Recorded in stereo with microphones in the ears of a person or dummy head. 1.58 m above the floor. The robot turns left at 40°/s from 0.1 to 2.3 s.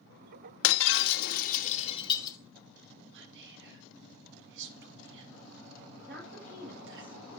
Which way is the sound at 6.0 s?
65° right (ahead or behind).